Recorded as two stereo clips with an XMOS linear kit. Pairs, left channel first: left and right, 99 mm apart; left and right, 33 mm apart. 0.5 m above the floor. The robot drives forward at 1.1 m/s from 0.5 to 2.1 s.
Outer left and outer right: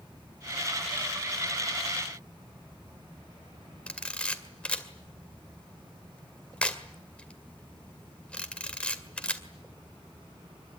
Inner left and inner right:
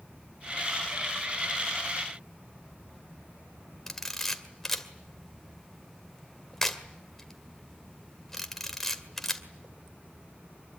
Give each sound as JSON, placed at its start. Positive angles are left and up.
{"t": 3.9, "sound": "a camera shutter", "side_deg": 10, "distance_m": 2.0}